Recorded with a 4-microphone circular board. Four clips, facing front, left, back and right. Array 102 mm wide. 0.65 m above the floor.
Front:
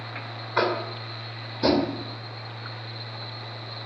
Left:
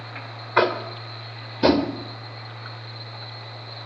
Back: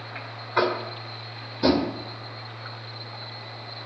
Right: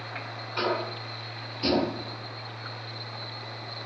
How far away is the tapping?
About 2 m.